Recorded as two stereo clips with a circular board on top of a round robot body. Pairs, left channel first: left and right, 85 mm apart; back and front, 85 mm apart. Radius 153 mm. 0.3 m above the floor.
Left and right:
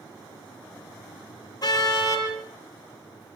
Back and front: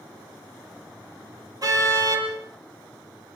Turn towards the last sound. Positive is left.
turn(degrees=45)